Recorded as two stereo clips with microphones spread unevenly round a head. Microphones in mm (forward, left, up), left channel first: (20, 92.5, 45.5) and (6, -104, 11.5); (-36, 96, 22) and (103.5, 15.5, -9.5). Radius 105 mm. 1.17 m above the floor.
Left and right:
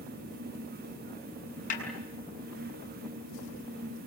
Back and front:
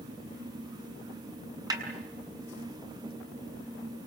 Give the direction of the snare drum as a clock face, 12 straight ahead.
11 o'clock.